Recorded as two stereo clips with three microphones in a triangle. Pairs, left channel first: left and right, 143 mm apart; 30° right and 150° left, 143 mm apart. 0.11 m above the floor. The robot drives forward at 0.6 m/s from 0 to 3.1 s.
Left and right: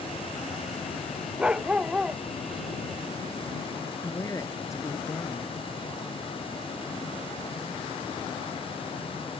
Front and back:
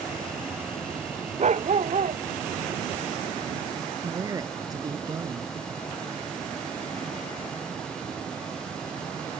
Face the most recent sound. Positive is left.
turn(degrees=130)